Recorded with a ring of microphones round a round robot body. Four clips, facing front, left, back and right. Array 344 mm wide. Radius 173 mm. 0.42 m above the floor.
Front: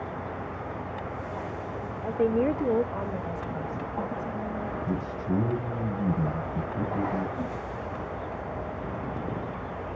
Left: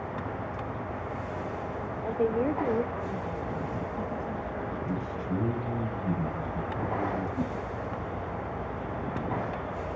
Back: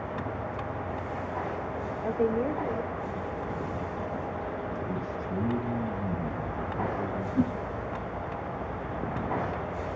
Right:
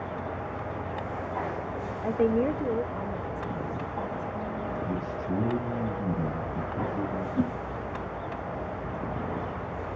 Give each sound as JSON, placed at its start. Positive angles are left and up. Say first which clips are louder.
{"t": 2.0, "sound": "a woman speaking", "louder": "right 2 dB, front 3 dB", "azimuth_deg": -130, "distance_m": 0.7}
{"t": 4.9, "sound": "a man speaking", "louder": "right 1 dB, front 3 dB", "azimuth_deg": -10, "distance_m": 8.5}
{"t": 7.3, "sound": "a whoosh", "louder": "right 4 dB, back 6 dB", "azimuth_deg": -140, "distance_m": 1.6}